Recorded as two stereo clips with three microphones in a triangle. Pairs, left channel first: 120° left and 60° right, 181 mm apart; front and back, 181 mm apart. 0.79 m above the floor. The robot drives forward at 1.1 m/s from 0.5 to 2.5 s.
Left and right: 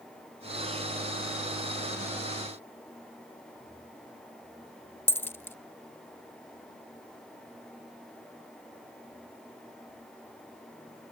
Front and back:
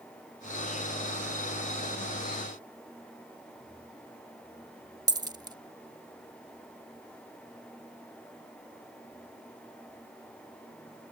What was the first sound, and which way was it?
A dropped coin, 175° left.